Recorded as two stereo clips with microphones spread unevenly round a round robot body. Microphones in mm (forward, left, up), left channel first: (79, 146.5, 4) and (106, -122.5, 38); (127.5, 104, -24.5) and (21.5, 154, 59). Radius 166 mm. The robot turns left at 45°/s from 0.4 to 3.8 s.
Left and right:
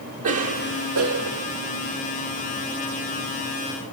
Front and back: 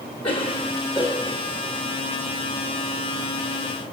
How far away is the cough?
About 3 m.